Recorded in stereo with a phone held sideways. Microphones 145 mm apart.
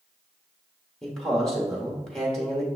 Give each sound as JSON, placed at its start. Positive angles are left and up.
{"t": 1.0, "sound": "a man speaking", "side_deg": 5, "distance_m": 1.3}